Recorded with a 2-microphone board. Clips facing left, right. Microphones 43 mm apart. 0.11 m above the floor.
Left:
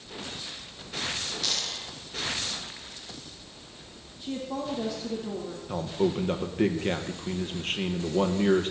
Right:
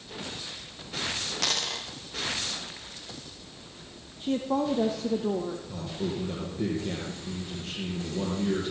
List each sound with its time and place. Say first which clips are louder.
1.4 s a dropped coin: right 6 dB; 85° right, 5.5 m
4.2 s a woman speaking: right 6 dB; 35° right (ahead or behind), 3.5 m
5.7 s a man speaking: left 6 dB; 55° left (ahead or behind), 3.5 m